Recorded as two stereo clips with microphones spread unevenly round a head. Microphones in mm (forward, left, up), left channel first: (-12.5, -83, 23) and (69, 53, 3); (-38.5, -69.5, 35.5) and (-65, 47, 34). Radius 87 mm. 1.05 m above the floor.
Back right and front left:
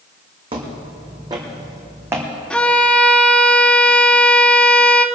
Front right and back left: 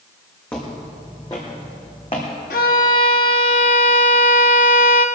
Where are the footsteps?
Straight ahead, 3 m; by 2.3 s 20° right, 3 m.